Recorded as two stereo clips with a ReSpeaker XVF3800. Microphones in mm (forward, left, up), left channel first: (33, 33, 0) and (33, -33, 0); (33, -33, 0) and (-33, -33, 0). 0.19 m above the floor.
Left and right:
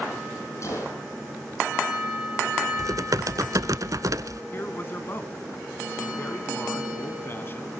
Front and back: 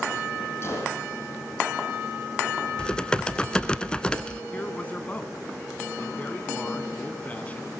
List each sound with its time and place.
0.6 s a gunshot: 50° left, 6.5 m
2.8 s typing on a keyboard: 75° right, 0.8 m
4.5 s a man speaking: 55° left, 1.8 m